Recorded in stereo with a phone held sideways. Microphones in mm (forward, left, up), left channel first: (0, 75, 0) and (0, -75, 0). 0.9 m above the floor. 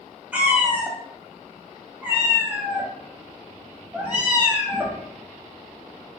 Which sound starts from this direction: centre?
A cat meowing, at 0.3 s.